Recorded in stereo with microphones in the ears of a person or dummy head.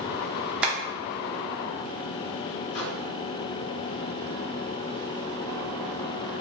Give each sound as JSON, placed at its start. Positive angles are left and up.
{"t": 0.6, "sound": "tapping", "side_deg": -5, "distance_m": 0.9}
{"t": 2.7, "sound": "a microwave", "side_deg": 65, "distance_m": 1.4}